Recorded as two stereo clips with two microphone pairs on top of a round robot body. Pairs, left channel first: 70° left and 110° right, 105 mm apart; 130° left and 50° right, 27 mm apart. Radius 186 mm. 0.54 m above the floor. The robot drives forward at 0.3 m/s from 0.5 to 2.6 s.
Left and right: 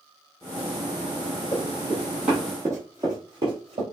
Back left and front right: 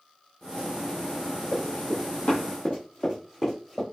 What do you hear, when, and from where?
1.5 s running footsteps: 135° left, 1.3 m; by 3.8 s 150° right, 1.7 m